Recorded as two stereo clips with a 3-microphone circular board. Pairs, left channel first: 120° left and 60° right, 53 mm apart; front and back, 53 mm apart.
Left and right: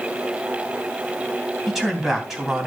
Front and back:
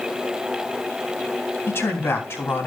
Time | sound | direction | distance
1.7 | a man speaking | 25° left | 3 m